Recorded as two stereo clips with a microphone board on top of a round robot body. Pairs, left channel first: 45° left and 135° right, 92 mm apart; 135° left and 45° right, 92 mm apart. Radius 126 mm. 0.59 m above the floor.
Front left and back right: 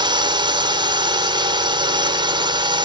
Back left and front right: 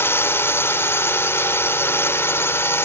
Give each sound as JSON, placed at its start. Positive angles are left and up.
{"t": 0.0, "sound": "a drone", "azimuth_deg": -160}